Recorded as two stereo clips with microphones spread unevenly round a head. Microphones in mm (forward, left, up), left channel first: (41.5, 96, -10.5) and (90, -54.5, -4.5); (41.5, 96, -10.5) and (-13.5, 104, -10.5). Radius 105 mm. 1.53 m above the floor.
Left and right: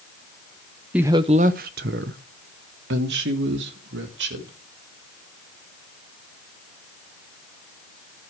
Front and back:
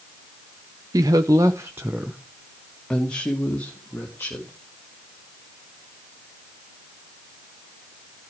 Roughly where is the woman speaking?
Behind right.